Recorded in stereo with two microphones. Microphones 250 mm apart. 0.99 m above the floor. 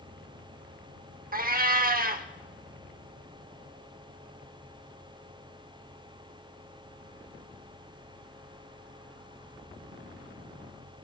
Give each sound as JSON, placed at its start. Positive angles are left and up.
{"t": 1.3, "sound": "a cat meowing", "side_deg": -35, "distance_m": 0.8}